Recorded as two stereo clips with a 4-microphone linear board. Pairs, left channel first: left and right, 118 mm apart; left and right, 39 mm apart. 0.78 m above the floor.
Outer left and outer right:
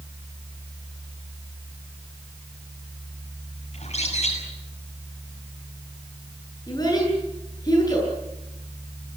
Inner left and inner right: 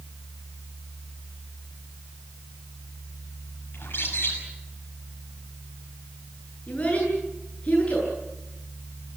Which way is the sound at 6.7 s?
35° left (ahead or behind).